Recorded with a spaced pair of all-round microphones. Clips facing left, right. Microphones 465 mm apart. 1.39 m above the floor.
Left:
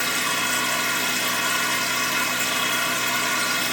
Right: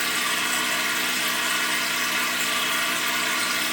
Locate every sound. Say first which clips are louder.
0.0 s a machine running: left 3 dB; 65° left (ahead or behind), 1.0 m